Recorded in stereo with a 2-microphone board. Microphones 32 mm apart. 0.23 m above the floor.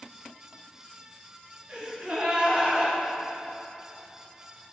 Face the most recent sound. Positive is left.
turn(degrees=-30)  # may be behind; listen again after turning